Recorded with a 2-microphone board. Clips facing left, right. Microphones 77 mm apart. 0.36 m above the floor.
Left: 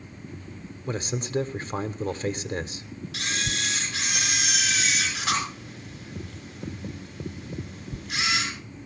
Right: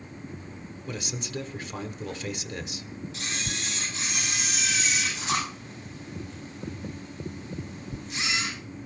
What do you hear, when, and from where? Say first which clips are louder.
0.9 s a man speaking: left 6 dB; 35° left (ahead or behind), 1.0 m
3.1 s a camera shutter: left 6 dB; 75° left (ahead or behind), 6 m